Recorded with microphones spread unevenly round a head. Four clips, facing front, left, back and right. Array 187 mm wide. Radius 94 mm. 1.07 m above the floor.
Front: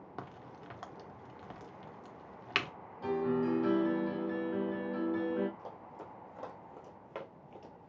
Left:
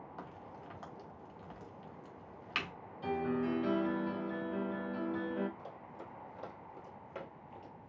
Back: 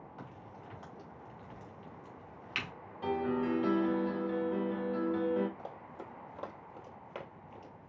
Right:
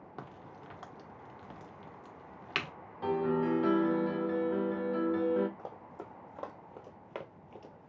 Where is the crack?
40° right, 1.2 m.